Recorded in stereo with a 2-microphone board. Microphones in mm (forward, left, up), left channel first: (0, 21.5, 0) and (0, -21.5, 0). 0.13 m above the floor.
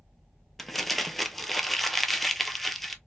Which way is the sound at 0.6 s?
5° left (ahead or behind).